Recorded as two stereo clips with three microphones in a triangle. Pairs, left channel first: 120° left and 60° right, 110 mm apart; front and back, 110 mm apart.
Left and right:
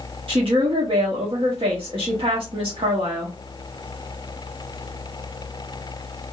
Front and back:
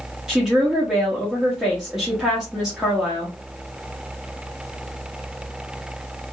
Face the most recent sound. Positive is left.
turn(degrees=-95)